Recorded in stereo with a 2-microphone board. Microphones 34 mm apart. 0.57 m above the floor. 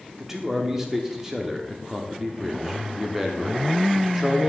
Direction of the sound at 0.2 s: 15° right (ahead or behind).